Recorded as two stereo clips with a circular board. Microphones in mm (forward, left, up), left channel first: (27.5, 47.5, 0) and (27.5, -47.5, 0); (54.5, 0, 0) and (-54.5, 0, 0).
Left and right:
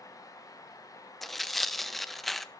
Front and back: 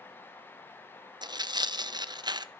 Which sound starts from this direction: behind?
Tearing paper, at 1.2 s.